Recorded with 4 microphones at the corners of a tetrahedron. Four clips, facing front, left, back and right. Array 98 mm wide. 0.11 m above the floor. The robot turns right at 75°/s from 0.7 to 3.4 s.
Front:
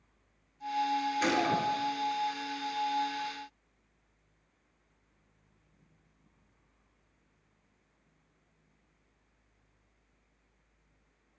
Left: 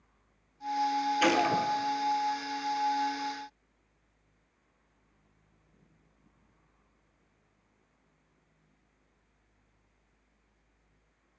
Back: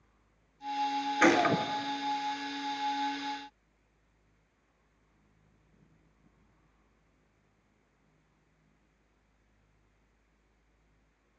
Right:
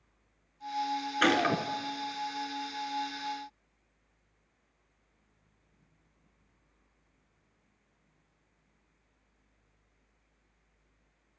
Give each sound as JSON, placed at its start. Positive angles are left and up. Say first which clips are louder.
{"t": 1.2, "sound": "a gunshot", "louder": "right 1 dB, back 6 dB", "azimuth_deg": -170, "distance_m": 0.9}